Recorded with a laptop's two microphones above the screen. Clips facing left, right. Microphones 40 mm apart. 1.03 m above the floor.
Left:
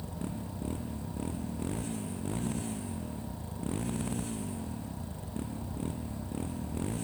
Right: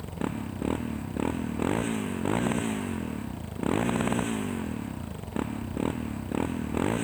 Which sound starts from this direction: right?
A motorcycle, at 0.0 s.